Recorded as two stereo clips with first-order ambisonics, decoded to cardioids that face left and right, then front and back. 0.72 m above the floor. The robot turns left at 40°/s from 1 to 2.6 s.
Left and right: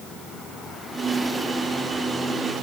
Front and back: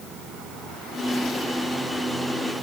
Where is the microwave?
No microwave in this recording.